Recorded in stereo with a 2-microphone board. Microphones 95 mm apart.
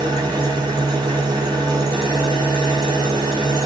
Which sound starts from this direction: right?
An engine running, at 0.0 s.